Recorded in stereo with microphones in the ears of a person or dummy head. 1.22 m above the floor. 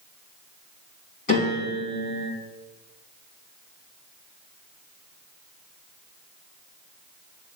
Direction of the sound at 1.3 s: 40° left (ahead or behind).